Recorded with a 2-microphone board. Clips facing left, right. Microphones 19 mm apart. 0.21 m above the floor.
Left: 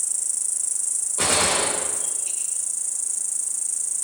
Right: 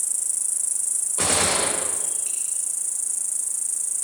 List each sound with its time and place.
0.0 s an insect: 15° left (ahead or behind), 1.2 m
1.2 s a gunshot: 15° right (ahead or behind), 8.5 m